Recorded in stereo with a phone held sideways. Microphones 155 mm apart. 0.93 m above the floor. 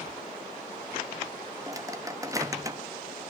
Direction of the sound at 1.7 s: 20° right (ahead or behind).